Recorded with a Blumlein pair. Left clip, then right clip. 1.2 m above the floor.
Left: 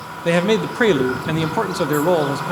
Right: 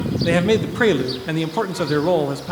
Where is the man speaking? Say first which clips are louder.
Left 1 dB; 5° left, 0.5 m.